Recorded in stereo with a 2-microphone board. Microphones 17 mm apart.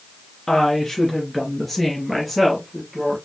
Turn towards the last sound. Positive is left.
turn(degrees=-5)  # may be behind; listen again after turning